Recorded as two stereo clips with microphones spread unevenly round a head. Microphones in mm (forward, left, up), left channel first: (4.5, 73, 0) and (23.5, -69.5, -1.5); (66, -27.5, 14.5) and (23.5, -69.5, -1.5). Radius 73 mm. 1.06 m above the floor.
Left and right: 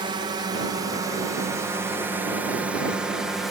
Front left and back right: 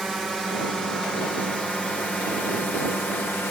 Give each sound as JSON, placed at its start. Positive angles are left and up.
{"t": 0.0, "sound": "a drone", "azimuth_deg": -55}